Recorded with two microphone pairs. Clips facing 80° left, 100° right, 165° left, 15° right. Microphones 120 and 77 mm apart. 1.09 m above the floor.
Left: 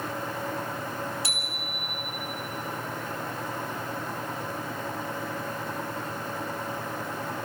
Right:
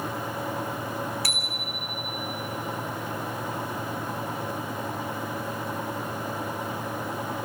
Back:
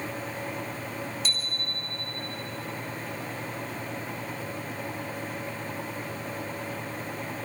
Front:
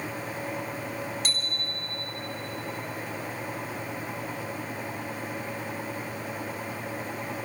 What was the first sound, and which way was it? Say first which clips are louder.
A bicycle bell: right 2 dB, front 1 dB; 15° left.